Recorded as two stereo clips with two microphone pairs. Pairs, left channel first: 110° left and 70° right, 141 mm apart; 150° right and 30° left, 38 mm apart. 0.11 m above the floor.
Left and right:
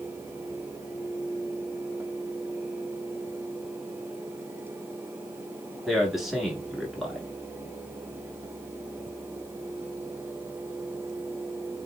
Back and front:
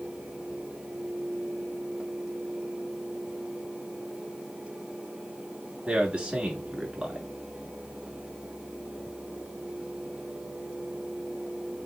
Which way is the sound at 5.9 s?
15° left.